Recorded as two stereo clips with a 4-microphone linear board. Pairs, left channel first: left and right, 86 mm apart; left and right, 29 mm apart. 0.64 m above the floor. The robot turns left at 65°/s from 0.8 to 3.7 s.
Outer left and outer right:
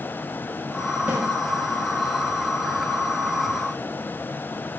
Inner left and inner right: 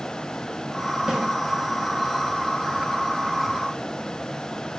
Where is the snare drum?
20° right (ahead or behind), 0.6 m.